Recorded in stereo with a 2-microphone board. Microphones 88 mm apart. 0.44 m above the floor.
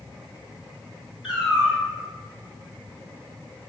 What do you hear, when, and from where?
1.2 s a cat meowing: 10° right (ahead or behind), 1.4 m